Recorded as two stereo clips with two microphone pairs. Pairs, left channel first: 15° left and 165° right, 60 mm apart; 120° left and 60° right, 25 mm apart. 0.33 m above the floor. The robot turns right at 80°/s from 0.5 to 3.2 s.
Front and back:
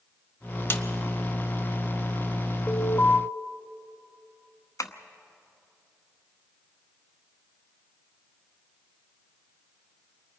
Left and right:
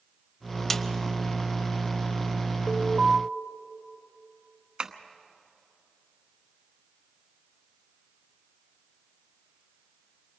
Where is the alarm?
15° right, 1.8 m; by 3.2 s 25° left, 1.8 m.